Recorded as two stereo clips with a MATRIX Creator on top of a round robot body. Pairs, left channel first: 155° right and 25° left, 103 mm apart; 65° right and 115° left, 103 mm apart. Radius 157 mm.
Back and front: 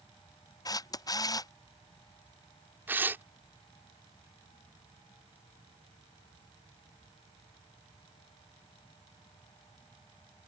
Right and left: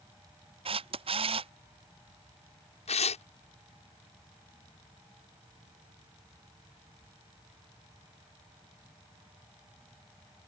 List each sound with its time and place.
0.7 s a camera shutter: 145° left
2.9 s tearing paper: 50° right